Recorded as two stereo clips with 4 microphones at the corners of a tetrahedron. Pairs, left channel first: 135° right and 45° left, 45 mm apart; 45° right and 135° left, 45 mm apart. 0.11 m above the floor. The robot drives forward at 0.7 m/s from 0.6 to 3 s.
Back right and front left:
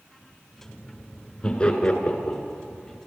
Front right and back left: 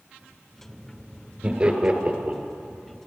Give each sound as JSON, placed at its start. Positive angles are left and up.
{"t": 1.4, "sound": "laughter", "azimuth_deg": 180, "distance_m": 1.6}